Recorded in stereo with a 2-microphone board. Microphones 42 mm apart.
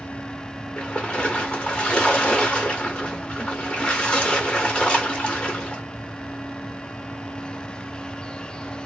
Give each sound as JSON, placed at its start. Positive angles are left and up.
{"t": 0.8, "sound": "a splash", "side_deg": 25, "distance_m": 0.9}